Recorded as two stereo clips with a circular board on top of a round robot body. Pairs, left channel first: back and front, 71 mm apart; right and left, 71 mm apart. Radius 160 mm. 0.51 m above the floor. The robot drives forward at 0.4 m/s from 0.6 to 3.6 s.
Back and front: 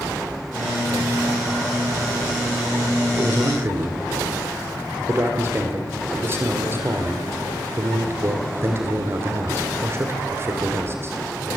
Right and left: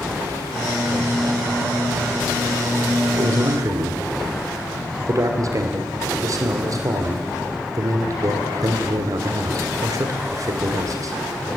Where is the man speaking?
50° left, 2.5 m; by 11.1 s 55° left, 2 m.